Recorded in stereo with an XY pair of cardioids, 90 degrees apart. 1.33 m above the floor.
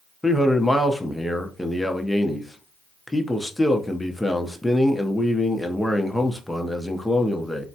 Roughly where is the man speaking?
Ahead.